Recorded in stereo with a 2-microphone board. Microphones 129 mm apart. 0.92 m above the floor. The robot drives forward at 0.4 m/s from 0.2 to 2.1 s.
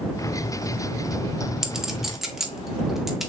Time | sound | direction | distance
1.6 | a clink | 5° right (ahead or behind) | 0.5 m